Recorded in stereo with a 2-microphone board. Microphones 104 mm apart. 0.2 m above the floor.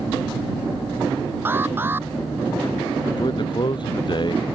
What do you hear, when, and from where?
1.4 s an alarm: 20° right (ahead or behind)
3.2 s a man speaking: 50° left (ahead or behind)